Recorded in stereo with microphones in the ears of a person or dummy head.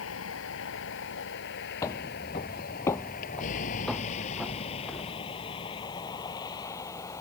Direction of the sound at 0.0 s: 75° left (ahead or behind).